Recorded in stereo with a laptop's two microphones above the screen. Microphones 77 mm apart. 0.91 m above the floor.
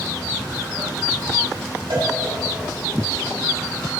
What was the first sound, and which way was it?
A cowbell, 80° right.